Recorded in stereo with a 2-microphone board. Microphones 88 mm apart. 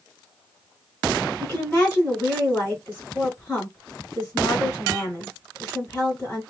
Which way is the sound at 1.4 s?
20° left (ahead or behind).